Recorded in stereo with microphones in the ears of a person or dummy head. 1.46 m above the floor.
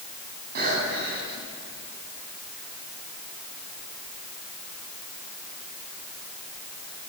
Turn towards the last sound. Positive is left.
turn(degrees=-60)  # may be behind; listen again after turning